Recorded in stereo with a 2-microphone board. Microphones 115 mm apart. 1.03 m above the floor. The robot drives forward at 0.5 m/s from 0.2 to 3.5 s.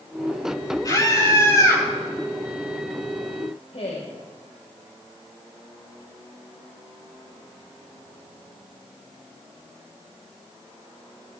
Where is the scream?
35° left (ahead or behind), 6.5 m; by 1.9 s 30° left (ahead or behind), 7 m.